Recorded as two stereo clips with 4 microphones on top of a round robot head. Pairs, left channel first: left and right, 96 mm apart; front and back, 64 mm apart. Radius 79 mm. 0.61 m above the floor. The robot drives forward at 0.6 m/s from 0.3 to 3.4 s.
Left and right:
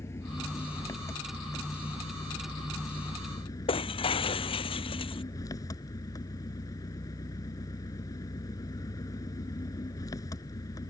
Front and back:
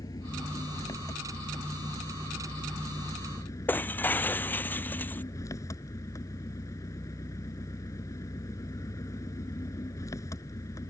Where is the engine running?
25° left; by 10.9 s 35° left.